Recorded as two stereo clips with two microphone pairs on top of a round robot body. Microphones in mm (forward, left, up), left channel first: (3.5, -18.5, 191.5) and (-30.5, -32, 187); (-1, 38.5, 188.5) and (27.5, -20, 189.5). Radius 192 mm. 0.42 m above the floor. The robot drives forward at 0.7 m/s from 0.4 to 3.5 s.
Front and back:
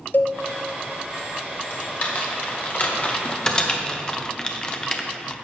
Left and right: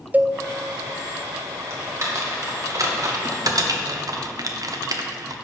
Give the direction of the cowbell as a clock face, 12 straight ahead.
12 o'clock.